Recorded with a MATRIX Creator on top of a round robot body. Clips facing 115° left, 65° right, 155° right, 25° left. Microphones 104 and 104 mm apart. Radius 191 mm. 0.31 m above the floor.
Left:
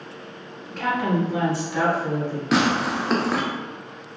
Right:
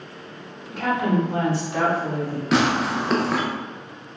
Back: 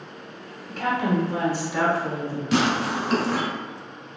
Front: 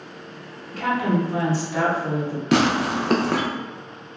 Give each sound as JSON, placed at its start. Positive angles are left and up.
{"t": 0.7, "sound": "a woman speaking", "azimuth_deg": -145, "distance_m": 1.1}
{"t": 2.5, "sound": "tearing paper", "azimuth_deg": 25, "distance_m": 0.6}